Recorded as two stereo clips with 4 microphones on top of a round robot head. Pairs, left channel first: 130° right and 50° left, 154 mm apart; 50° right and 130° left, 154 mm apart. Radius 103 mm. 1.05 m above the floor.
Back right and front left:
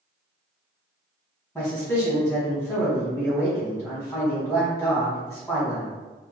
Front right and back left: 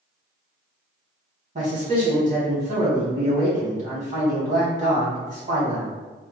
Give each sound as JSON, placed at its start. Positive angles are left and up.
{"t": 1.6, "sound": "a man speaking", "azimuth_deg": 150, "distance_m": 1.2}